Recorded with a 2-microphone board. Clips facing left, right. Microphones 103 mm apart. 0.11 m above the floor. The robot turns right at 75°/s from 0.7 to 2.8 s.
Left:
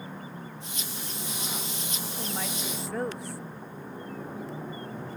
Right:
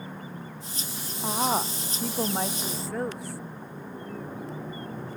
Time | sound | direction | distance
1.2 | a woman speaking | 120° right | ?